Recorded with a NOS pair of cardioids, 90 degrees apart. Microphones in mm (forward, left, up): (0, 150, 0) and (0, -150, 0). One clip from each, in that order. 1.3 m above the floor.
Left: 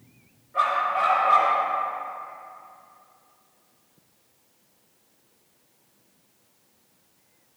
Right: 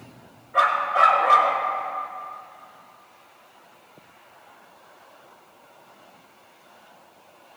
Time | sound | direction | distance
0.5 | a dog barking | 70° right | 4.5 m